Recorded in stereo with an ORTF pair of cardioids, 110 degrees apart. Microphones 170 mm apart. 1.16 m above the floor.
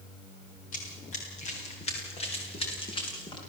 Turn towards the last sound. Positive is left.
turn(degrees=25)